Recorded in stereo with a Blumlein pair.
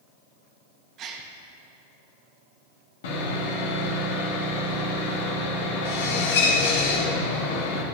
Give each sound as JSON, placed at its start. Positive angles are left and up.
{"t": 1.0, "sound": "a gasp", "azimuth_deg": -30, "distance_m": 1.4}
{"t": 3.0, "sound": "sawing", "azimuth_deg": 55, "distance_m": 2.0}